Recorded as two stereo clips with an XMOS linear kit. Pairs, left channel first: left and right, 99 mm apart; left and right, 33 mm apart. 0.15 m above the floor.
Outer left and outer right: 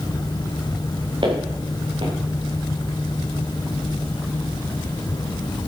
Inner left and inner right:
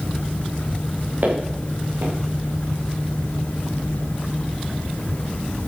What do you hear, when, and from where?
1.2 s footsteps: 55° right (ahead or behind), 5 m